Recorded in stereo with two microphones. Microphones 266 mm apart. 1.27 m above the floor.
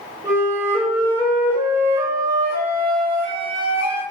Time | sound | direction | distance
0.2 | a flute | 5° left (ahead or behind) | 2.5 m